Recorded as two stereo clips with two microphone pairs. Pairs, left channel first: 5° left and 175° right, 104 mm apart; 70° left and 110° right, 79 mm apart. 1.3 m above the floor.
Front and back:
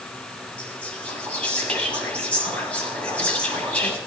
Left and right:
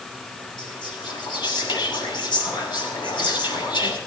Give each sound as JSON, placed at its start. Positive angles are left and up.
{"t": 0.6, "sound": "whispering", "azimuth_deg": 85, "distance_m": 7.5}